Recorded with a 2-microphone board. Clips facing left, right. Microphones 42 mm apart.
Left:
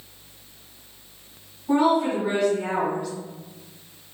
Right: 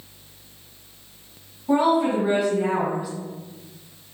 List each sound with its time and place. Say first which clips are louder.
1.7 s a woman speaking: right 1 dB; 10° right (ahead or behind), 1.7 m